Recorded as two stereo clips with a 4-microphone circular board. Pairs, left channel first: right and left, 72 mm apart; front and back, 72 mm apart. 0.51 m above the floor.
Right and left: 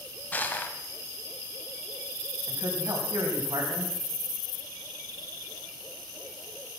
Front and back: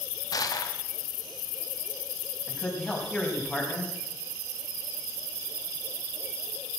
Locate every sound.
0.3 s crushing: 25° right, 1.3 m
2.5 s a man speaking: 80° left, 4 m